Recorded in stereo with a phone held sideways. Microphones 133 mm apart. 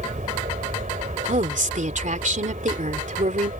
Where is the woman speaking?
70° right (ahead or behind).